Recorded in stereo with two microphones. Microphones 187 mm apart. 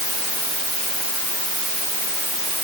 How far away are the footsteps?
No footsteps in this recording.